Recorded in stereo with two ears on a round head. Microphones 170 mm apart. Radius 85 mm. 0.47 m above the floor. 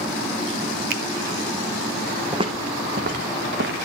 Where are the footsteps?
25° right (ahead or behind), 1.1 m; by 3.9 s 65° right (ahead or behind), 1.7 m.